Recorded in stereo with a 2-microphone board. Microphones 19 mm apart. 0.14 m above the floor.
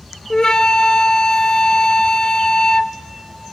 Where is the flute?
45° left (ahead or behind), 0.8 m.